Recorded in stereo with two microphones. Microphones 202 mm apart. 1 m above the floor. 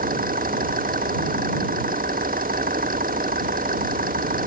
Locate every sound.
0.0 s an engine running: 45° right (ahead or behind)